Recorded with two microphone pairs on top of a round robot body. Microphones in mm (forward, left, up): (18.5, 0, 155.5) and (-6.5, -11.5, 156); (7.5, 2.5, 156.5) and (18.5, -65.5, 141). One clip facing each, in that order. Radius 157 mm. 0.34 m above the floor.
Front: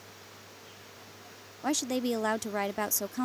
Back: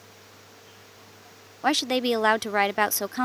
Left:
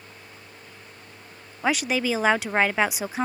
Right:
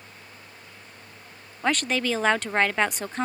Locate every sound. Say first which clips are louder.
1.6 s a woman speaking: back 7 dB, left 1 dB; 165° right